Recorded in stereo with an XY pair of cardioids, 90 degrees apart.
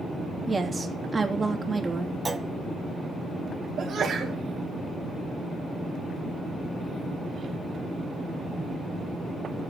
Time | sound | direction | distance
0.5 | a woman speaking | 30° right | 3 m
2.2 | a clunk | 30° right | 1.4 m
3.8 | a sneeze | 65° right | 5 m